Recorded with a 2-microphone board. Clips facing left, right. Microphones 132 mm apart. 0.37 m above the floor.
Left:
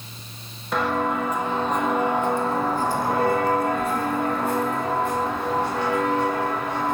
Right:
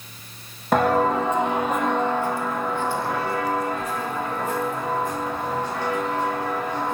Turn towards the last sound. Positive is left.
turn(degrees=70)  # may be behind; listen again after turning